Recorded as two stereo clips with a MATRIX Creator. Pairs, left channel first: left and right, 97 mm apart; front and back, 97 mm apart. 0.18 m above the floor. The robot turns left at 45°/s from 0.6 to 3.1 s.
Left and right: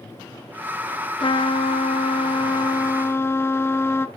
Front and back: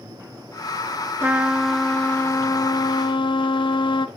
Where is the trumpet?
115° left, 0.8 m; by 4.1 s 25° left, 0.8 m.